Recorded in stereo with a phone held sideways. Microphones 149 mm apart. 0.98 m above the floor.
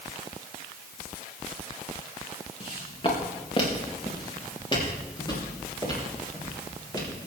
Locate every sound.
2.6 s footsteps: 35° left (ahead or behind), 3.5 m; by 7.2 s 25° left (ahead or behind), 7.5 m